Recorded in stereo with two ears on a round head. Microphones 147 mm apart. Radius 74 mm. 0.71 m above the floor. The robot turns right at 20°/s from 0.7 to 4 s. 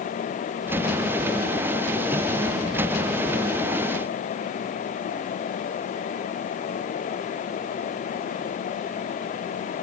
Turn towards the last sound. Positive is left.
No sound to turn to.